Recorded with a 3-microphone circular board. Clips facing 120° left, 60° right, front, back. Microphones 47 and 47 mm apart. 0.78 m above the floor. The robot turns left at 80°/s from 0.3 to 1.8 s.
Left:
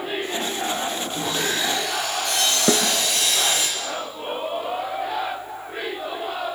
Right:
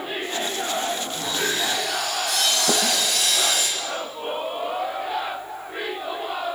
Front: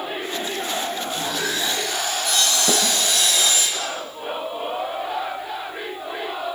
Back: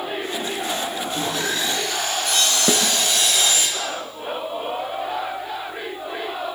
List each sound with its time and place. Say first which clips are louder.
1.1 s sawing: left 1 dB, back 2 dB; straight behind, 8.5 m; by 3.7 s 125° left, 8.5 m
2.7 s a snare drum: left 5 dB, back 3 dB; 115° left, 3.5 m